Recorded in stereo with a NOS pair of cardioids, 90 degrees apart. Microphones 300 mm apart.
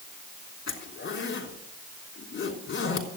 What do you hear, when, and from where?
0.7 s a zipper: 40° left, 3.5 m